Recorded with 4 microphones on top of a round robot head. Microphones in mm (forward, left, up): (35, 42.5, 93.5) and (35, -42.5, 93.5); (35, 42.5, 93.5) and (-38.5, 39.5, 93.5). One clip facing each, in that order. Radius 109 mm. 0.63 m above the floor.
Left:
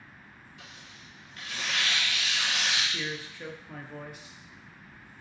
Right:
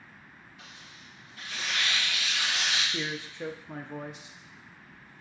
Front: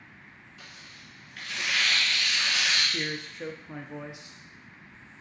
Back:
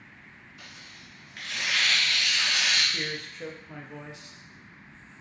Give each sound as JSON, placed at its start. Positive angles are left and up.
{"t": 0.6, "sound": "tearing paper", "azimuth_deg": 105, "distance_m": 2.0}
{"t": 2.9, "sound": "a man speaking", "azimuth_deg": -50, "distance_m": 0.5}